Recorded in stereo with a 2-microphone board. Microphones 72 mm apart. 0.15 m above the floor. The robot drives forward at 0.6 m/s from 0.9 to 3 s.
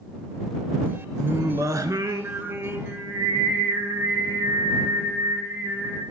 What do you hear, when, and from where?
1.2 s singing: 50° right (ahead or behind), 0.6 m; by 6.0 s 25° right (ahead or behind), 1.0 m